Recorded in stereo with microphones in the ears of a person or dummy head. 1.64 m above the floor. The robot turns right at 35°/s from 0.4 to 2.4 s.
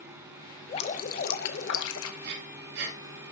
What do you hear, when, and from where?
0.7 s dripping: 35° left, 0.9 m; by 2.1 s 85° left, 0.9 m
2.2 s breathing: 70° right (ahead or behind), 3.5 m; by 3.0 s 60° right (ahead or behind), 3.5 m